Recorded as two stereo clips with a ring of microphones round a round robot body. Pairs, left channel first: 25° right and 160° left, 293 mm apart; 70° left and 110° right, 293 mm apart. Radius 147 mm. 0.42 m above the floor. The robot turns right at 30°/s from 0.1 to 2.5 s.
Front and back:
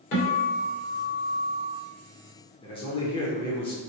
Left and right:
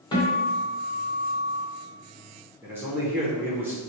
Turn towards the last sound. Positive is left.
turn(degrees=-45)